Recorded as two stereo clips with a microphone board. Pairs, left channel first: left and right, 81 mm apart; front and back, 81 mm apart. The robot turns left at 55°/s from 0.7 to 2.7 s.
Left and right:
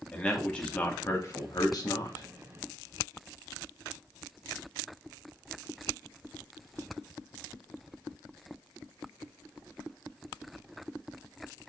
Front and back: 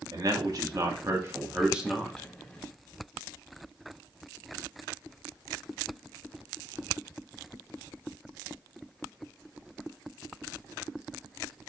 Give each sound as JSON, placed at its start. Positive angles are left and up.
{"t": 0.1, "sound": "a man speaking", "azimuth_deg": 160, "distance_m": 0.9}